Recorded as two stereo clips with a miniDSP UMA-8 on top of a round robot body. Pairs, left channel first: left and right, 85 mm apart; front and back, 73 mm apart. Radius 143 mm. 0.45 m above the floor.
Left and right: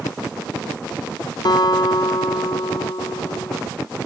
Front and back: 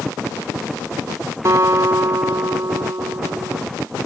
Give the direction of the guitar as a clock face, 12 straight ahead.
8 o'clock.